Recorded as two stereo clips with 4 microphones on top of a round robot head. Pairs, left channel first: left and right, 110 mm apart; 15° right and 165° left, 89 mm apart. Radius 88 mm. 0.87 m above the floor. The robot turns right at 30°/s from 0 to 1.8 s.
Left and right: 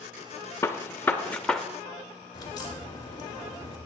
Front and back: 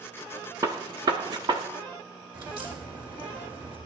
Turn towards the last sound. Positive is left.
turn(degrees=140)